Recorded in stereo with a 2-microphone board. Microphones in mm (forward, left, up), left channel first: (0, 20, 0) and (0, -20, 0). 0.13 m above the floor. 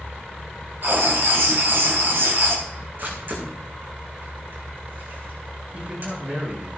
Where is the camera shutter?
55° right (ahead or behind), 6.5 m.